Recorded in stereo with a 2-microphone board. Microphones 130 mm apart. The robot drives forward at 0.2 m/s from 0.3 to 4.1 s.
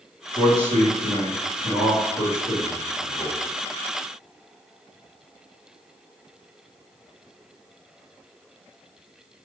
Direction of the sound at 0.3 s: 50° right (ahead or behind).